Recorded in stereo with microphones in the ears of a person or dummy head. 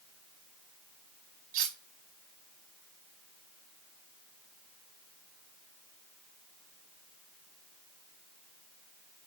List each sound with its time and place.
1.5 s cutlery clinking: 50° right (ahead or behind), 4.5 m